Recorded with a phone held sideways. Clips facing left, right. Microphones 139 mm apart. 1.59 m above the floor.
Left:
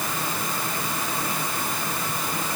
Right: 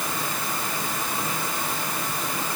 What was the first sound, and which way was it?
Only background noise.